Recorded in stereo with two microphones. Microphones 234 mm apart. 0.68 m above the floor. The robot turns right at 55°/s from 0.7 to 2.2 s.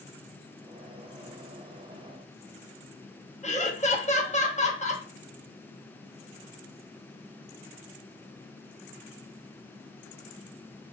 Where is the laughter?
30° left (ahead or behind), 0.6 m.